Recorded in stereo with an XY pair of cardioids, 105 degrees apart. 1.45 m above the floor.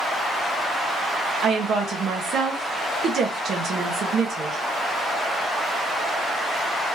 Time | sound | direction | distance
1.4 | a woman speaking | 60° right | 1.2 m